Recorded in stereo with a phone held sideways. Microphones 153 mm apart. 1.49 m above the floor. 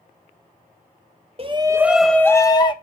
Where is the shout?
40° right (ahead or behind), 0.8 m; by 2.7 s 30° left (ahead or behind), 1.2 m.